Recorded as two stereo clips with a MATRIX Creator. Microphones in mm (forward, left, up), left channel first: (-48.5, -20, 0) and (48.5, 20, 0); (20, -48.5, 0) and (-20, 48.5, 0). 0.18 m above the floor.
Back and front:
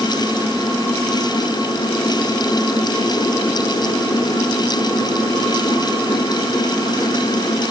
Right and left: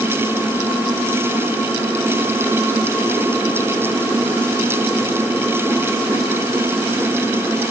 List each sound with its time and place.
Only background noise.